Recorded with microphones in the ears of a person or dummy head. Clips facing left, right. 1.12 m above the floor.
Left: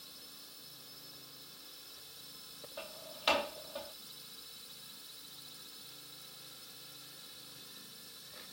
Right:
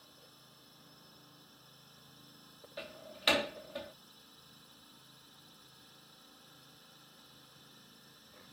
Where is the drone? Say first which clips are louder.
Left 2 dB; 30° left (ahead or behind).